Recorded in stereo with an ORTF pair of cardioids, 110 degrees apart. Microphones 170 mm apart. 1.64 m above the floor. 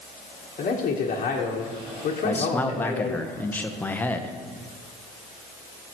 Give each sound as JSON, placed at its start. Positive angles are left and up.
{"t": 0.6, "sound": "a man speaking", "azimuth_deg": 45, "distance_m": 1.2}
{"t": 2.2, "sound": "a man speaking", "azimuth_deg": 10, "distance_m": 0.8}